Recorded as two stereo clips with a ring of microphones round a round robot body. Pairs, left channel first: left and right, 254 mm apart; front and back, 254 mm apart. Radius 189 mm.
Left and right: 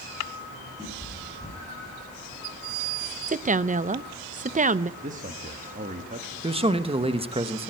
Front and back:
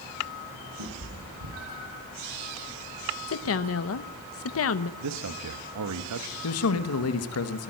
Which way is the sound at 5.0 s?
155° right.